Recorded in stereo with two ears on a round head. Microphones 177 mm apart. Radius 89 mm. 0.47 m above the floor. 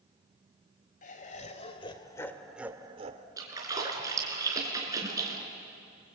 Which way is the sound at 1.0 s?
45° left (ahead or behind).